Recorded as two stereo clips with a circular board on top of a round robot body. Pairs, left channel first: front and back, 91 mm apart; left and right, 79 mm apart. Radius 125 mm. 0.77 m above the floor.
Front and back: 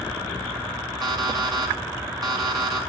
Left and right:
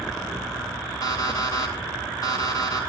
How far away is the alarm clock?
About 4 m.